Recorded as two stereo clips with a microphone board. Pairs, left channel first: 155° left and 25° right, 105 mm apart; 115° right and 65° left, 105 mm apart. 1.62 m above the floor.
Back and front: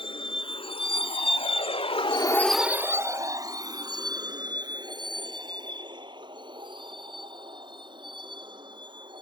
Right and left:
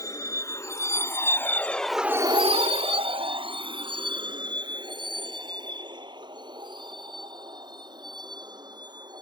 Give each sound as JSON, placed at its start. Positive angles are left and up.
{"t": 0.0, "sound": "a vehicle", "azimuth_deg": -170}